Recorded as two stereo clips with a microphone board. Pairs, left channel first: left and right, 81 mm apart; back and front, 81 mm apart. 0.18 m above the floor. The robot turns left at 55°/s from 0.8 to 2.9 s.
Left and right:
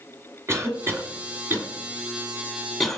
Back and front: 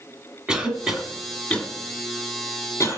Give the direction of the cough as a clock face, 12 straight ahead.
2 o'clock.